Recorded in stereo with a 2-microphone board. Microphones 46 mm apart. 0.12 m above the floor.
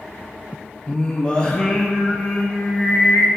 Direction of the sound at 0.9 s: 20° left (ahead or behind).